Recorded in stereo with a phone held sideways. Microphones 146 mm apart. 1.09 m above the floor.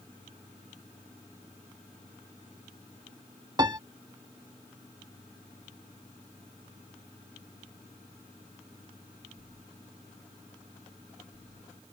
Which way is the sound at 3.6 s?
25° right (ahead or behind).